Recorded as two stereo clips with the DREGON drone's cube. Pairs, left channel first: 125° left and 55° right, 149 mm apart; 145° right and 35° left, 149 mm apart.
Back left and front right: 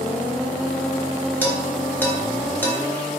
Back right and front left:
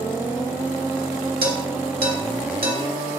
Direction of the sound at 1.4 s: 45° left.